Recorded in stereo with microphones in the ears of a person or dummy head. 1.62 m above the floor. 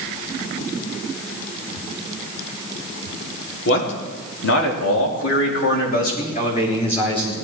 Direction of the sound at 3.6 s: 75° left (ahead or behind).